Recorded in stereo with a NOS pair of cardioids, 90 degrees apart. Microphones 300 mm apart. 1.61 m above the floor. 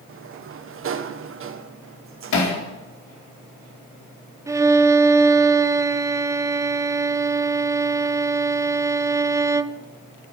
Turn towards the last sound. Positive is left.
turn(degrees=-10)